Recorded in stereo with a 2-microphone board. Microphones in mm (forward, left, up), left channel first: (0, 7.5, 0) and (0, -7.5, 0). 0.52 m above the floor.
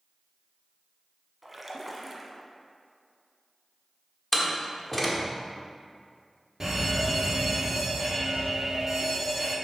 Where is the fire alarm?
20° right (ahead or behind), 1.7 m.